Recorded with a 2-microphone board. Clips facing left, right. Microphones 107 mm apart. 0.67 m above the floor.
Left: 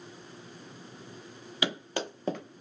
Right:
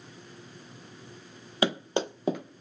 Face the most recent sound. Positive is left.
turn(degrees=5)  # may be behind; listen again after turning